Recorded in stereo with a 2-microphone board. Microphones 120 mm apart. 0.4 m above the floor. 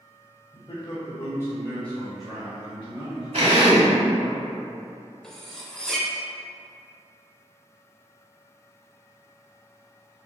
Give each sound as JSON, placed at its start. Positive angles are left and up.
{"t": 0.5, "sound": "a man speaking", "side_deg": 45, "distance_m": 1.6}
{"t": 3.3, "sound": "a drill", "side_deg": -60, "distance_m": 1.2}
{"t": 5.2, "sound": "cutlery clinking", "side_deg": 5, "distance_m": 0.6}